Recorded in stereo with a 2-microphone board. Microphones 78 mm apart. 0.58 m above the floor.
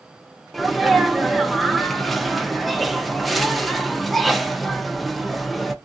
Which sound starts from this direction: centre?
A sneeze, at 0.5 s.